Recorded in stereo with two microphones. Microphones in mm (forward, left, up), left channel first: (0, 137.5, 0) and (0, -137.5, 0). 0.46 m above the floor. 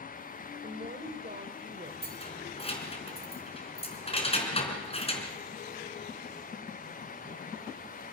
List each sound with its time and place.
0.6 s a woman speaking: 35° right (ahead or behind), 1.3 m
2.0 s keys jangling: 20° left (ahead or behind), 4 m